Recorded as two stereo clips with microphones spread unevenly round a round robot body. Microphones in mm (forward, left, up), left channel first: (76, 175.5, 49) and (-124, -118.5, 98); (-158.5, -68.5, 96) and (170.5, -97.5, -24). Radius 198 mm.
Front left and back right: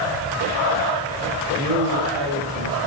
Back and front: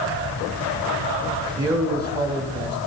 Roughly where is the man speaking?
Right.